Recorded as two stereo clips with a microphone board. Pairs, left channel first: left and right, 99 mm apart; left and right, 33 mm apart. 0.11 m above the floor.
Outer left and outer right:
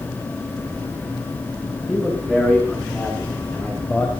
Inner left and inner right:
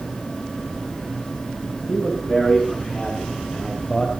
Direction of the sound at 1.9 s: 5° right (ahead or behind).